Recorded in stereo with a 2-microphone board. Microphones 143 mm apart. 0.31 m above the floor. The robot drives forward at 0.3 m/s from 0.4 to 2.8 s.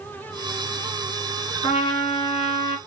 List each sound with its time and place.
1.6 s a trumpet: 35° left (ahead or behind), 2.0 m; by 2.8 s 40° left (ahead or behind), 1.7 m